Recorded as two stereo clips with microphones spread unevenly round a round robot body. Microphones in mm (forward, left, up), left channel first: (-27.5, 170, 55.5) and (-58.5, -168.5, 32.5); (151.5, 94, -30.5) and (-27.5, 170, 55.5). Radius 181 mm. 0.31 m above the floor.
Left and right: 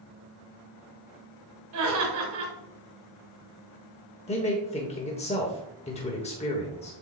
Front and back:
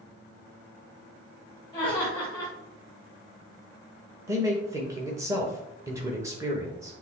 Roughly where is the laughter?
Right.